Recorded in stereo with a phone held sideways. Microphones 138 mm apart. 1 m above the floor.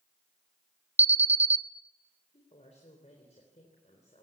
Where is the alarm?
50° right (ahead or behind), 0.5 m.